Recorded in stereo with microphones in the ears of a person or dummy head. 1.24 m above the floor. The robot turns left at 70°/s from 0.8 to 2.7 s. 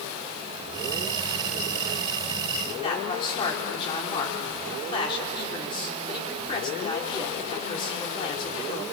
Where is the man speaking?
35° left (ahead or behind), 4.5 m.